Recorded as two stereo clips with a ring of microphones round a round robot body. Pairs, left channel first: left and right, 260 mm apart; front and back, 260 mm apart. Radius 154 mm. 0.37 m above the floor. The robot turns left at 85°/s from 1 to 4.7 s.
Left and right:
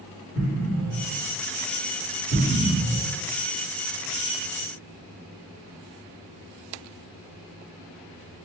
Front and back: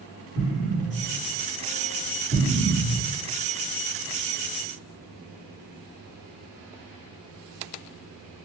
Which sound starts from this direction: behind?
An explosion, at 0.3 s.